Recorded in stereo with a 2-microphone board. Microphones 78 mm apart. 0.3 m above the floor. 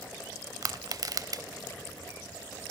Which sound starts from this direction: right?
Crushing, at 0.6 s.